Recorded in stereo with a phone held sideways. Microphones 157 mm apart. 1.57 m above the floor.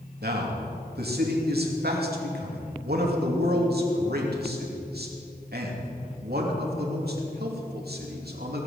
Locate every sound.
0.2 s a man speaking: 85° right, 3 m